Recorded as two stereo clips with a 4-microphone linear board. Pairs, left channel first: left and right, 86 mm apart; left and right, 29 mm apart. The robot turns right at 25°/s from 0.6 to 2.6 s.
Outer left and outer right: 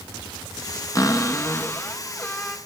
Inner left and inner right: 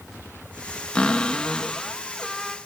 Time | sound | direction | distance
0.9 | a cupboard door | 130° left | 1.7 m